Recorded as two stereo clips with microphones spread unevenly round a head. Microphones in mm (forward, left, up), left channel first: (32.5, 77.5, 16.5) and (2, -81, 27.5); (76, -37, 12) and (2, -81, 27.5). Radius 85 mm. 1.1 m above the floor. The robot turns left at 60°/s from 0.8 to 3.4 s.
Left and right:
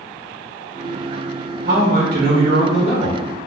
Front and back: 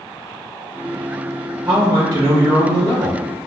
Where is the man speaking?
115° right, 1.1 m; by 3.2 s 155° left, 1.1 m.